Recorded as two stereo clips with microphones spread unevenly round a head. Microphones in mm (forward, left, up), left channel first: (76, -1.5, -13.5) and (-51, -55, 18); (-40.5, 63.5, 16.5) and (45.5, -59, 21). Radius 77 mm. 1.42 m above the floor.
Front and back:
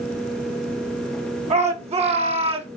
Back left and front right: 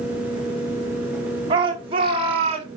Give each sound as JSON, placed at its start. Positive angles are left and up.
{"t": 1.5, "sound": "a shout", "azimuth_deg": -115, "distance_m": 4.0}